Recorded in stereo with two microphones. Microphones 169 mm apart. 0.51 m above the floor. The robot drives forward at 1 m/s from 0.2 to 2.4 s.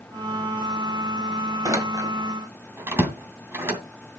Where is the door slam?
20° right (ahead or behind), 1.7 m; by 3.8 s 15° right (ahead or behind), 2.5 m.